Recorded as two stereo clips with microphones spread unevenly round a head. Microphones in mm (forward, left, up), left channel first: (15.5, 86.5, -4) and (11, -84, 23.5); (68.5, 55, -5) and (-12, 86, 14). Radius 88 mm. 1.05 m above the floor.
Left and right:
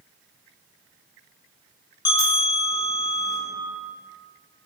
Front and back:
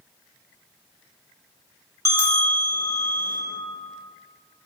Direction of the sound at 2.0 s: 105° left.